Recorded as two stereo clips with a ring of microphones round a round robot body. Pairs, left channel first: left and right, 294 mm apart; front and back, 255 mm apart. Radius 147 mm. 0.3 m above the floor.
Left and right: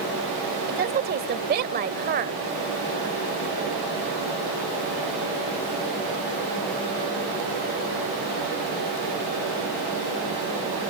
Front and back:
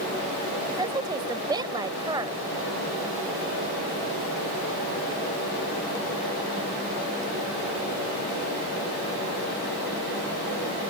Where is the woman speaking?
115° right.